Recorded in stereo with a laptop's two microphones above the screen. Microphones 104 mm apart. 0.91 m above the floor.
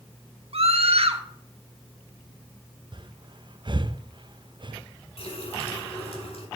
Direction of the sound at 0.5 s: 70° right (ahead or behind).